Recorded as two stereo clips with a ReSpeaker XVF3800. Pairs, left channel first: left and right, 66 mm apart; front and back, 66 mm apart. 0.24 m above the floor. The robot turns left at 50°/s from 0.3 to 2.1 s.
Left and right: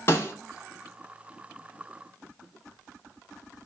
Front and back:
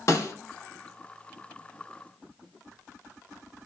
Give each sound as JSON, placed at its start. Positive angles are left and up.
{"t": 0.1, "sound": "a snare drum", "azimuth_deg": 35, "distance_m": 0.9}